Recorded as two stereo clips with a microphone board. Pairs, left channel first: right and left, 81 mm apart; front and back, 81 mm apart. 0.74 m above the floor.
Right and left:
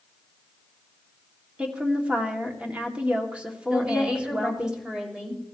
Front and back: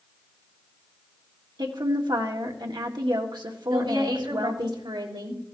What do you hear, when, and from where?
1.6 s a woman speaking: 165° left, 1.7 m
3.7 s a woman speaking: 170° left, 3 m